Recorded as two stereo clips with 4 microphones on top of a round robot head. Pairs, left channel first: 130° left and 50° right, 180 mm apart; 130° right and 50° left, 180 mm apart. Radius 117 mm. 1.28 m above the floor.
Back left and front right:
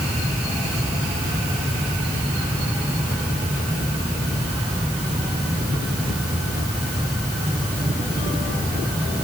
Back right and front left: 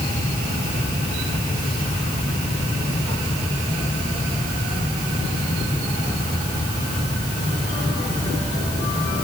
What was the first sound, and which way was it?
Only background noise.